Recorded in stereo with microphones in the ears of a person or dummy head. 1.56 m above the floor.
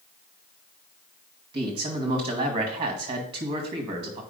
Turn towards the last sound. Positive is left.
turn(degrees=-30)  # may be behind; listen again after turning